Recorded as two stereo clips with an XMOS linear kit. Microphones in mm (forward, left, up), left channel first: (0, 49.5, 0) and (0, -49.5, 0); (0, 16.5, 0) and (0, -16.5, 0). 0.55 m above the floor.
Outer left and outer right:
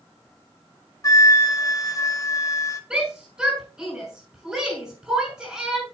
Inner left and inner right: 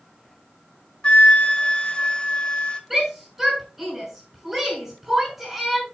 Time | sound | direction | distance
1.0 | a flute | 35° left (ahead or behind) | 1.1 m
2.9 | a shout | 5° right (ahead or behind) | 5.5 m